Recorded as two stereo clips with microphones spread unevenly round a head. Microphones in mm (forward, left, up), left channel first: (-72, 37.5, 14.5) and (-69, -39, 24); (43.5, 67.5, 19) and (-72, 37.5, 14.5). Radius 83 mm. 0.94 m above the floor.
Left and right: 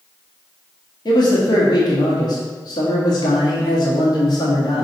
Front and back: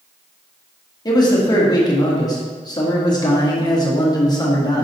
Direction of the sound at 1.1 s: 70° left.